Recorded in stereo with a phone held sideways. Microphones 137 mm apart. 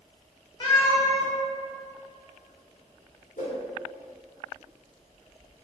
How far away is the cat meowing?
About 0.6 m.